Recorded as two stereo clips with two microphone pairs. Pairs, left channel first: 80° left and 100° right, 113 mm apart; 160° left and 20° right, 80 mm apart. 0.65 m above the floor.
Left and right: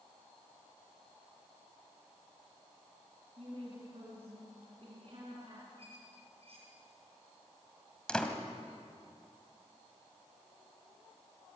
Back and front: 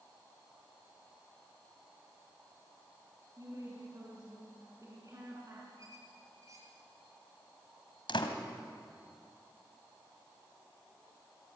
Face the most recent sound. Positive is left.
turn(degrees=160)